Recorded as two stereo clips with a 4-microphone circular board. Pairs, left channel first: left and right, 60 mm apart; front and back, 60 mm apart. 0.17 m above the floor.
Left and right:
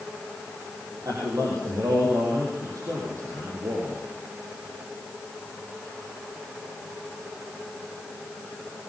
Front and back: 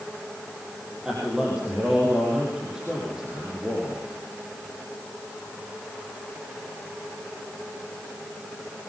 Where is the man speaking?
100° right, 5.5 m.